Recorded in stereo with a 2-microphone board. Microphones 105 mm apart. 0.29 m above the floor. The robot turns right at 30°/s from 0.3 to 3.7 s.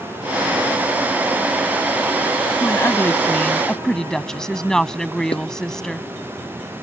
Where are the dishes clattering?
60° left (ahead or behind).